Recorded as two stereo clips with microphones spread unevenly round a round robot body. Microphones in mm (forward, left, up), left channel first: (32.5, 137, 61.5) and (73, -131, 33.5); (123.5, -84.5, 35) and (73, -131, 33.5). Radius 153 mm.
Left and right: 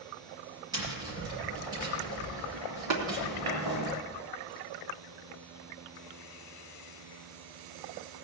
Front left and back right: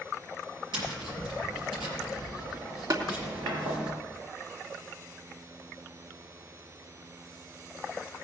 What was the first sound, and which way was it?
Tapping, 160° right.